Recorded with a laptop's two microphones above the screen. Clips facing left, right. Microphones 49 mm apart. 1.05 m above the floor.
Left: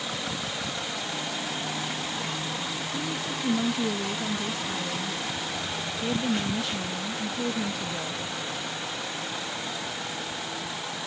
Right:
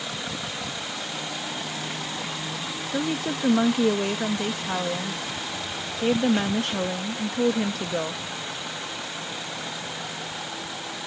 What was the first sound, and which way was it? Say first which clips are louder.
A woman speaking: right 8 dB; 55° right (ahead or behind).